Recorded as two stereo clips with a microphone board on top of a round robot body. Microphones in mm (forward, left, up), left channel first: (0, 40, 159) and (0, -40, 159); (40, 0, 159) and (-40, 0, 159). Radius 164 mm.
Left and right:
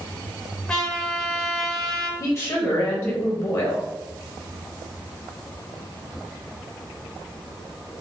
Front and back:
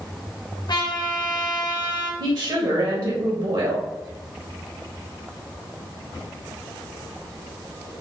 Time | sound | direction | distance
0.7 | a trumpet | 10° left | 1.0 m
2.2 | a woman speaking | 150° left | 1.1 m